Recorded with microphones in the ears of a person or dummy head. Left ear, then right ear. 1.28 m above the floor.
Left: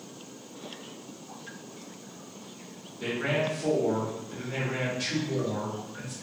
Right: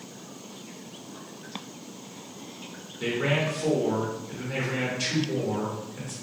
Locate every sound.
3.0 s a man speaking: 5° right (ahead or behind), 1.0 m